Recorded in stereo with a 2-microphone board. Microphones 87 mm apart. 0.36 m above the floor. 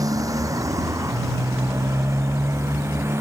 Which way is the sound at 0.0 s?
45° right (ahead or behind).